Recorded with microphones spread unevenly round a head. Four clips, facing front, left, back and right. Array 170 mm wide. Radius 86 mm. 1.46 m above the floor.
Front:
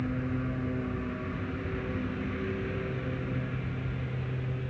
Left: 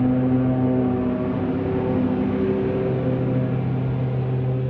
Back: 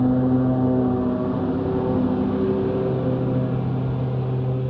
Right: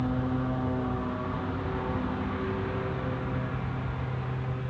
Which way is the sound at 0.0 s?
135° left.